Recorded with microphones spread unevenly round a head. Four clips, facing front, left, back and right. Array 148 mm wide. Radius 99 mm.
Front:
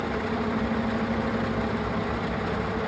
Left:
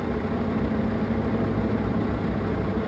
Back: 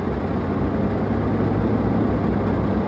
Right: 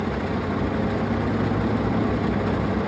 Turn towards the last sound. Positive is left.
turn(degrees=175)